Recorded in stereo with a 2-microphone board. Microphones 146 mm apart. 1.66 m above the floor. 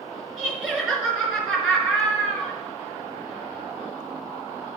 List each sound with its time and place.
0.4 s laughter: 10° right (ahead or behind), 3 m